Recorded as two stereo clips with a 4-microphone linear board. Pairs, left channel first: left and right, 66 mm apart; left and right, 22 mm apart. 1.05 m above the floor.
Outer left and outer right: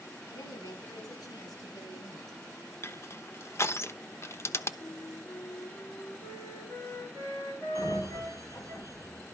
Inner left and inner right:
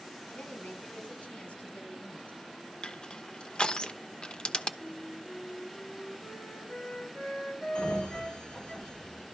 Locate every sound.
0.3 s a woman speaking: 80° left, 8 m; by 2.4 s 85° left, 6.5 m
2.8 s crushing: 45° left (ahead or behind), 0.8 m
4.8 s a flute: 75° left (ahead or behind), 3 m
7.8 s a sliding door: 55° left (ahead or behind), 5.5 m